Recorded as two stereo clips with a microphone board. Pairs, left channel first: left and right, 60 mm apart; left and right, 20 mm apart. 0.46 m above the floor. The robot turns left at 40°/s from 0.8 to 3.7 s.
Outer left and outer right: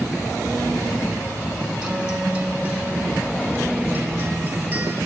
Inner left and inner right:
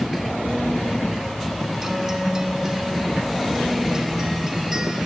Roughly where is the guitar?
Centre.